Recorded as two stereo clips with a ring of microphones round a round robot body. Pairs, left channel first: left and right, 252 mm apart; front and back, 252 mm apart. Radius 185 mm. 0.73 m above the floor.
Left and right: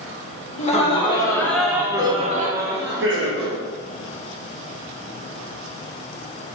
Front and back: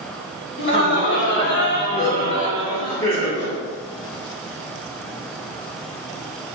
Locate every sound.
0.6 s laughter: 30° left, 1.3 m; by 3.6 s 90° right, 1.3 m